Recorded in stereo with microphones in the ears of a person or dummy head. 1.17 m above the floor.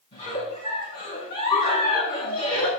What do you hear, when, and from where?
0.1 s a giggle: 30° left (ahead or behind), 6 m